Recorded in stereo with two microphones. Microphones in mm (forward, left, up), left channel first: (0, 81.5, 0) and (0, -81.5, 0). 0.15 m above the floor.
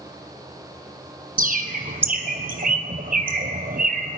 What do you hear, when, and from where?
1.4 s a bird: 60° right (ahead or behind), 1.0 m